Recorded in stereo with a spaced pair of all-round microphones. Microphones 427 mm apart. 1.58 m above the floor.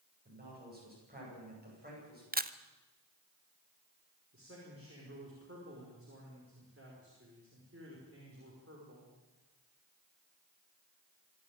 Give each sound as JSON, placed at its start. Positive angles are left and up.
{"t": 0.2, "sound": "a man speaking", "side_deg": -20, "distance_m": 10.0}
{"t": 2.3, "sound": "a camera shutter", "side_deg": -20, "distance_m": 0.8}
{"t": 4.3, "sound": "a man speaking", "side_deg": -30, "distance_m": 5.5}